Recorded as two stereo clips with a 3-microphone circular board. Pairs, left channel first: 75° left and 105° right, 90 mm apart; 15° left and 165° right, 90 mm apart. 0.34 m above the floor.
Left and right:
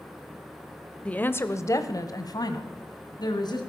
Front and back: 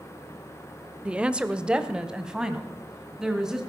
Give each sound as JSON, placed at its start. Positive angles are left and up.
{"t": 1.1, "sound": "a woman speaking", "azimuth_deg": 135, "distance_m": 0.9}